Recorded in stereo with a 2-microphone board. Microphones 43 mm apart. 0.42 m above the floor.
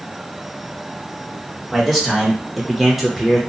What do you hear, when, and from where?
1.7 s a man speaking: 5° right (ahead or behind), 1.6 m; by 3.4 s centre (ahead or behind), 1.0 m